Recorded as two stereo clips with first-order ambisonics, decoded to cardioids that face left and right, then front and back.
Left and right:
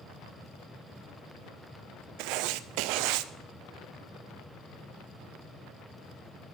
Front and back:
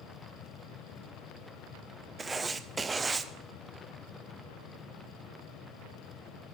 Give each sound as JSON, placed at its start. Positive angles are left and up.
{"t": 2.2, "sound": "writing", "azimuth_deg": -105, "distance_m": 0.6}